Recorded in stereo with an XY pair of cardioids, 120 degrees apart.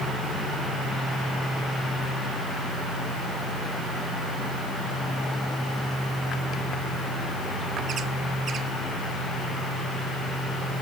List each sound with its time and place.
Only background noise.